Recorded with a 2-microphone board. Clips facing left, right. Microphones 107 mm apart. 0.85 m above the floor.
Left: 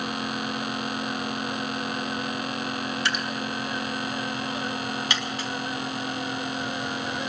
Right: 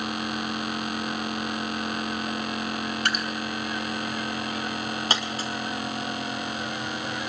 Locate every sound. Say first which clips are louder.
3.0 s dripping: right 1 dB; 50° right (ahead or behind), 2 m
5.1 s a dropped coin: right 1 dB; 40° right (ahead or behind), 2 m